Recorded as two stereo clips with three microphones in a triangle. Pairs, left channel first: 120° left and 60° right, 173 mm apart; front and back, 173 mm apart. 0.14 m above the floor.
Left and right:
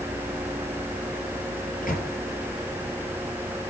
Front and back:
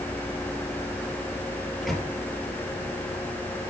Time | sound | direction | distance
1.8 | a microwave | 90° left | 2 m